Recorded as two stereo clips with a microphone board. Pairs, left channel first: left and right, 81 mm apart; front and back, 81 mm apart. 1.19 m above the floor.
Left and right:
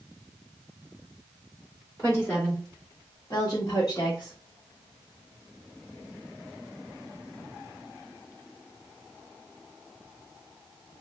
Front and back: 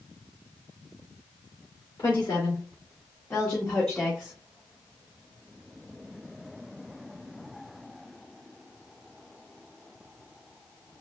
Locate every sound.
2.0 s a woman speaking: 30° left, 1.8 m; by 4.3 s 80° left, 0.9 m